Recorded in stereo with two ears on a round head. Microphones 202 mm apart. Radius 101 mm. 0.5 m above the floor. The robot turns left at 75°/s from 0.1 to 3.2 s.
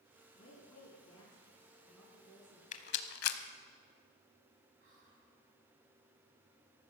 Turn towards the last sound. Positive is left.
turn(degrees=-50)  # may be behind; listen again after turning